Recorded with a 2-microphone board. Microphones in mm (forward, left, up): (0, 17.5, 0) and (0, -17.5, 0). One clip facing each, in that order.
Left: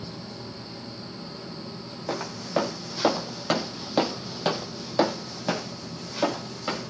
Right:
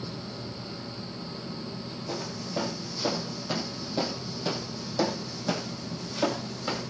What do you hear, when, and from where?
2.1 s footsteps: 55° left (ahead or behind), 1.4 m; by 6.9 s 10° left (ahead or behind), 1.8 m